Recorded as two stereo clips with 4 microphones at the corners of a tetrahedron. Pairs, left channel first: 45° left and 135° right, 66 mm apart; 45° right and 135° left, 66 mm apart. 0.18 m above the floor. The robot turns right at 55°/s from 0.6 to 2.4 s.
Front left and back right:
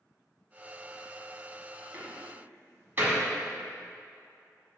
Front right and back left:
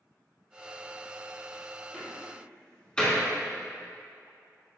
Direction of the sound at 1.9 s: 130° right.